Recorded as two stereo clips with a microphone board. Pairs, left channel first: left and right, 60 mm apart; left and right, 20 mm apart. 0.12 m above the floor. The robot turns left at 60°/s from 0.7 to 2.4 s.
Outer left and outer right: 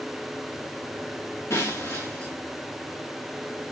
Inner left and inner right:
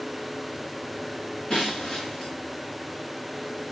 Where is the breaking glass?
135° left, 7 m; by 2.3 s 85° left, 7 m.